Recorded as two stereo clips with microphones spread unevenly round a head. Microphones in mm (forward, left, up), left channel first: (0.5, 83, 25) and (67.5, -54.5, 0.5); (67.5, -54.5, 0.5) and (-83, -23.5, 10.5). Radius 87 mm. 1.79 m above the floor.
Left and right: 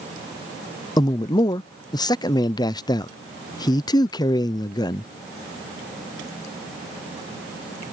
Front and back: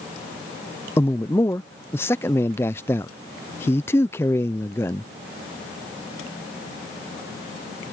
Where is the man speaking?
65° left.